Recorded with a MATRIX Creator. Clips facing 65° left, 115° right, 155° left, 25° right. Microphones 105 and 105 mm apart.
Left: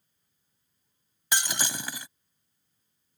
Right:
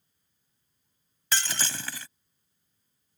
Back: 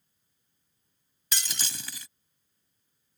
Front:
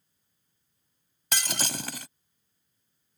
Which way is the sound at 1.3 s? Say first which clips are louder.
Left 1 dB, front 7 dB; 5° right.